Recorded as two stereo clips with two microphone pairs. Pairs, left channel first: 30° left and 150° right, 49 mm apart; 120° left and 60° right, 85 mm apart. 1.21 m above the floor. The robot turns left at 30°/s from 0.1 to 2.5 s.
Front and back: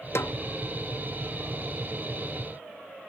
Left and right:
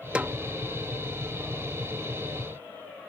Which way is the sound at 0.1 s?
15° left.